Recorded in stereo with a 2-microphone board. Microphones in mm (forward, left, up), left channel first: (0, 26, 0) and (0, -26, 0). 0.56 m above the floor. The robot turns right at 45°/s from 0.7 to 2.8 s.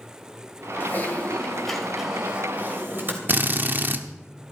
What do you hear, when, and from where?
0.8 s typing on a keyboard: 135° left, 2.5 m; by 3.2 s 135° right, 2.5 m
3.3 s a drill: 40° right (ahead or behind), 1.1 m